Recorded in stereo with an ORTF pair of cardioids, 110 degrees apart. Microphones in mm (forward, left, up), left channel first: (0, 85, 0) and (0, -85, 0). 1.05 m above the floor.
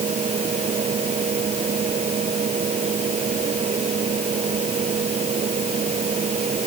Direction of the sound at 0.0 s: 40° right.